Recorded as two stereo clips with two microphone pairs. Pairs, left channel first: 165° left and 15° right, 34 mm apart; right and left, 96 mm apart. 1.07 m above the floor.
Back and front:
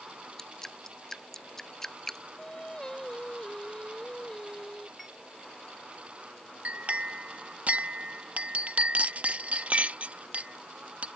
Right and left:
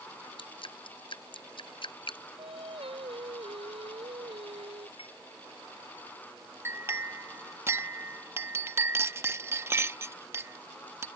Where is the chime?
105° right.